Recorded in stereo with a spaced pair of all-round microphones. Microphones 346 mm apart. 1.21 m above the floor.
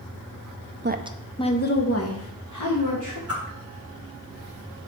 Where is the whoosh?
40° left (ahead or behind), 1.7 m.